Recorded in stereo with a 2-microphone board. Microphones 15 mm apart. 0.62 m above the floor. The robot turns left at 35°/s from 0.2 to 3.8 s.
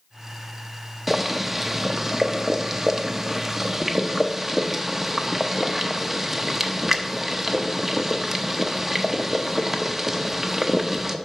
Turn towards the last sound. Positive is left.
turn(degrees=-20)  # may be behind; listen again after turning